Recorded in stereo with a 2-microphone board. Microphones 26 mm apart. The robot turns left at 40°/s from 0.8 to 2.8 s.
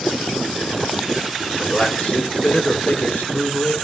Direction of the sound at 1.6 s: 145° left.